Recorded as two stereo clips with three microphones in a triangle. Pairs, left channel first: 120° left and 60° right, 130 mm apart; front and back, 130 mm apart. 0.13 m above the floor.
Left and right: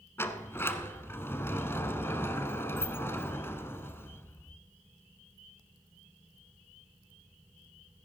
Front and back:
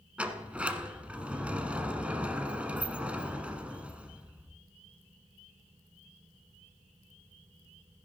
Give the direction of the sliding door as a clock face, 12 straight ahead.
8 o'clock.